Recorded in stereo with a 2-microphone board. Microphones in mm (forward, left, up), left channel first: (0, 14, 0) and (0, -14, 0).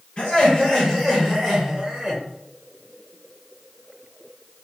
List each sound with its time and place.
0.2 s laughter: 35° left (ahead or behind), 1.4 m; by 2.2 s 15° right (ahead or behind), 1.4 m